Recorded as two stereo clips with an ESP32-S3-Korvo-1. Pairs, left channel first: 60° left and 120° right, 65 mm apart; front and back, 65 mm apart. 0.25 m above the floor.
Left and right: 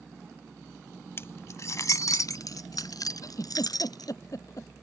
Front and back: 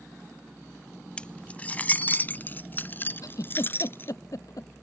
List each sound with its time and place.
1.2 s keys jangling: 65° left; by 4.1 s 55° left
3.2 s a giggle: 30° left